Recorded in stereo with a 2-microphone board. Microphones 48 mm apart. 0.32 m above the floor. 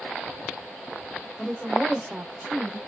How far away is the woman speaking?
About 1.1 m.